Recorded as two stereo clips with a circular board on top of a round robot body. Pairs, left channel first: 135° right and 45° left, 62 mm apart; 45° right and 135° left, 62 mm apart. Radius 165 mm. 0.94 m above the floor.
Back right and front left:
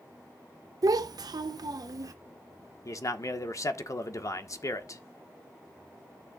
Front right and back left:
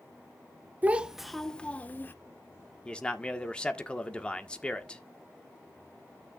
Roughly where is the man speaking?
Behind right.